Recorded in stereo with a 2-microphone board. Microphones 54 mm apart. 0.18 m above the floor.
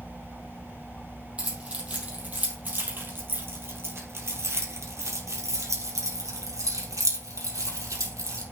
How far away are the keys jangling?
About 4 m.